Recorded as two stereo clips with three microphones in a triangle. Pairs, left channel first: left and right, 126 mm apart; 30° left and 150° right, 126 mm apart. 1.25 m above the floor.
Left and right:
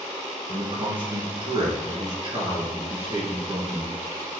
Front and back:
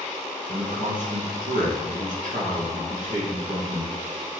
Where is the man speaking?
135° right, 1.6 m.